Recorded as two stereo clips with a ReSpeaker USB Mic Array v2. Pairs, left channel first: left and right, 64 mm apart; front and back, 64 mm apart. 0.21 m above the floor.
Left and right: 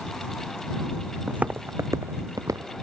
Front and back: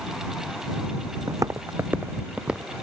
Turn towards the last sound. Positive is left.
turn(degrees=-100)